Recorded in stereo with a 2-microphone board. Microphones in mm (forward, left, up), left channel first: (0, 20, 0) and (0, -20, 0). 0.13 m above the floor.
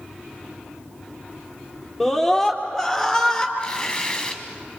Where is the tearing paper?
20° left (ahead or behind), 2 m.